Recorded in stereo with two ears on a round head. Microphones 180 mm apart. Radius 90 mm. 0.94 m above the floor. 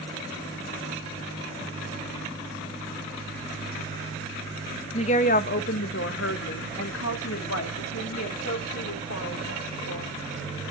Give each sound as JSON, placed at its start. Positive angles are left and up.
{"t": 4.9, "sound": "a woman speaking", "side_deg": 30, "distance_m": 0.7}